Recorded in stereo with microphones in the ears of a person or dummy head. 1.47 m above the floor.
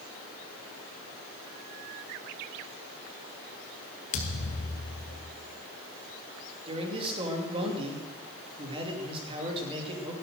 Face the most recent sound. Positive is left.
turn(degrees=-30)  # may be behind; listen again after turning